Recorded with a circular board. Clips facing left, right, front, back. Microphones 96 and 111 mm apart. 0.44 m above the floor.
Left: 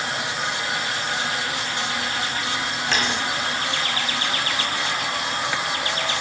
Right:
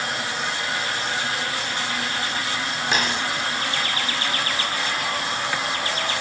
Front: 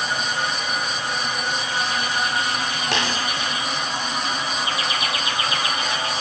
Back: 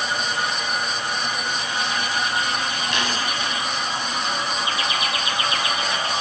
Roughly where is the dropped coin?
Ahead.